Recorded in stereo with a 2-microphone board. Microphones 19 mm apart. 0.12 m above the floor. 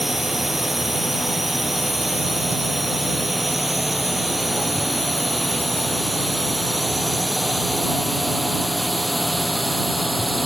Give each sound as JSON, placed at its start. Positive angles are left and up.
{"t": 0.0, "sound": "a drone", "side_deg": -10}